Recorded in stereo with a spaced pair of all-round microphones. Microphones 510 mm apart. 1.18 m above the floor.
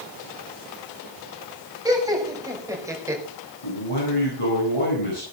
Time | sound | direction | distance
1.9 | laughter | 5° right (ahead or behind) | 6 m
3.6 | a man speaking | 85° left | 8.5 m